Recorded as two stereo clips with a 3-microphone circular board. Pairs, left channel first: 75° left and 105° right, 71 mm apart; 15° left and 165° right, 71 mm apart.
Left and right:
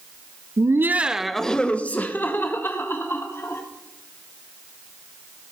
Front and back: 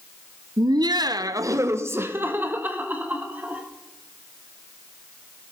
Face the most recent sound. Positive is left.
turn(degrees=125)